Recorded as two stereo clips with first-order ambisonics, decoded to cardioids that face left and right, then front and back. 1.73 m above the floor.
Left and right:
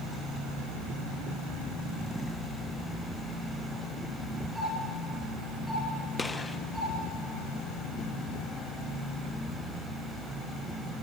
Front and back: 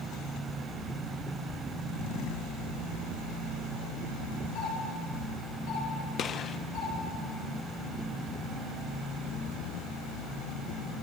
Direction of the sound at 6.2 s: 20° left.